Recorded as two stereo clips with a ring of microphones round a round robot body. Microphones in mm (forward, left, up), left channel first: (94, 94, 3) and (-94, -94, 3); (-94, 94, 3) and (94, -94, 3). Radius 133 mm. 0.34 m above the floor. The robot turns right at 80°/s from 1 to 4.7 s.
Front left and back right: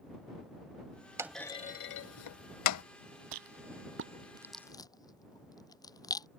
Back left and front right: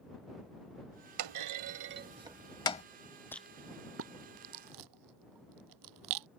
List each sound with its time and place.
1.2 s a clunk: 55° right; by 2.9 s 75° left
3.3 s a rattle: 145° right; by 6.3 s 30° right